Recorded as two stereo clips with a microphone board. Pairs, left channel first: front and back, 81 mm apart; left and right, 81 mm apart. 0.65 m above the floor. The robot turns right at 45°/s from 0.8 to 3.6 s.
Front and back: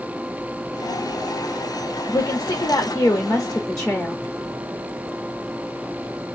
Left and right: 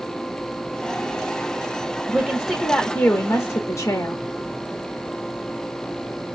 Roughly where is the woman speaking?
Ahead.